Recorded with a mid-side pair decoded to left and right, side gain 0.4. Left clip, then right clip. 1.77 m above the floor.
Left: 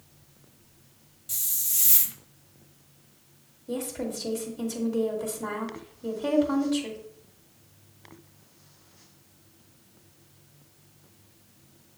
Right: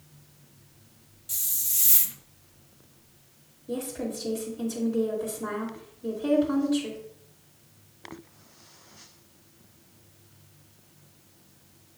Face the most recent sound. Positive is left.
turn(degrees=50)